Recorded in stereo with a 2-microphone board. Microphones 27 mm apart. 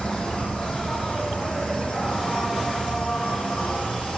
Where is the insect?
30° left (ahead or behind), 8 m.